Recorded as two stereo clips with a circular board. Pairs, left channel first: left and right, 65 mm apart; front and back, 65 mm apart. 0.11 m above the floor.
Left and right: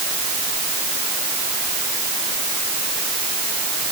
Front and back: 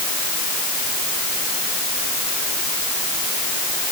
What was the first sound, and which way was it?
Only background noise.